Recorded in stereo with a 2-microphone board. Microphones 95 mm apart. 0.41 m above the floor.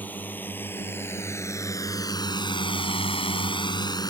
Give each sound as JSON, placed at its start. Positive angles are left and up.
{"t": 0.0, "sound": "a drone", "side_deg": 20}